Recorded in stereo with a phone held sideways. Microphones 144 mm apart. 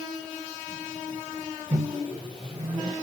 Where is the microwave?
35° right (ahead or behind), 1.2 m.